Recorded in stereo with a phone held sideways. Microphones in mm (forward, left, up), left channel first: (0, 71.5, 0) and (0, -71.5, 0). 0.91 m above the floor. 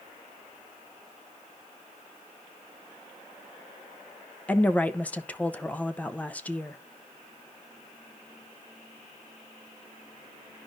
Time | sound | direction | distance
4.5 | a woman speaking | 10° left (ahead or behind) | 0.6 m